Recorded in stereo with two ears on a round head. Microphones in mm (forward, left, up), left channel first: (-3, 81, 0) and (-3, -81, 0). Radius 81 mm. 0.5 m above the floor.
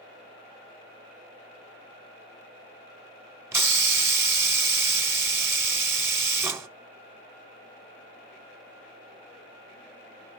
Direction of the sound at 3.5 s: 15° right (ahead or behind).